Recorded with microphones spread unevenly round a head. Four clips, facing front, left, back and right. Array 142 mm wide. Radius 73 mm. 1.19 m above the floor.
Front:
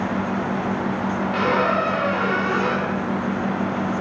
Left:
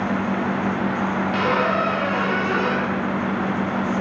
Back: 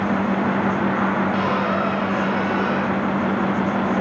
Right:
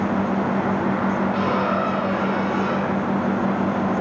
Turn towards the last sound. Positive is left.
turn(degrees=45)